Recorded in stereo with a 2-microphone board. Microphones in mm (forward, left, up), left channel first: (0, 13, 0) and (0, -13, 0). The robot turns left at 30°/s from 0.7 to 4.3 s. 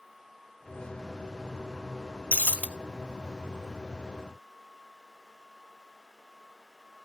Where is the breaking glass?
75° left (ahead or behind), 0.6 m; by 2.7 s 85° left, 0.6 m.